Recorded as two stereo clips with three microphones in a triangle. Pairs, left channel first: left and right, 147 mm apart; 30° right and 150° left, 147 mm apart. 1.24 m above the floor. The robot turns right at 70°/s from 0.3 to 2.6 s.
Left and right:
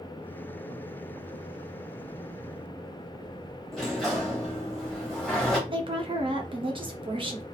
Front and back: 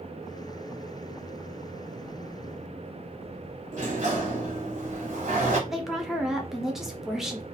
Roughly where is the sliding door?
Behind.